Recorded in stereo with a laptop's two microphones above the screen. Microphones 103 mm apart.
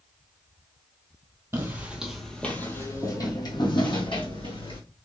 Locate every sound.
1.5 s footsteps: 25° right (ahead or behind), 1.3 m; by 4.8 s 65° left (ahead or behind), 2.5 m